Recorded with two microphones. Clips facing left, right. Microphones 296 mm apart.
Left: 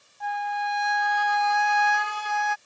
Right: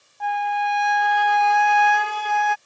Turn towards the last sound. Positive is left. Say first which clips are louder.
# right 6 dB
turn(degrees=-75)  # may be behind; listen again after turning